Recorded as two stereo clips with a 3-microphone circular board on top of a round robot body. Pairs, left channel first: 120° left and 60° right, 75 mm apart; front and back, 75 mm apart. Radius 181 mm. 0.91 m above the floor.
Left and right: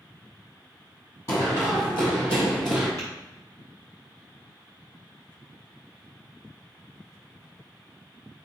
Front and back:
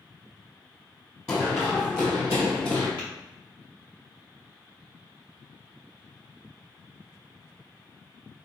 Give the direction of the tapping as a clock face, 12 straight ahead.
6 o'clock.